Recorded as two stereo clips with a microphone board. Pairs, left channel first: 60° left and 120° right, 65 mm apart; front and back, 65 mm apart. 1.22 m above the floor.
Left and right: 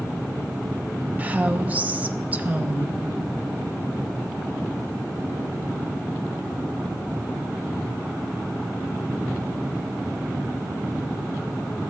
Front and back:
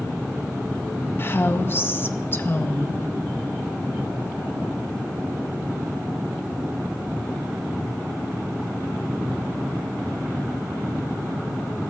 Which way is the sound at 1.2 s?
55° right.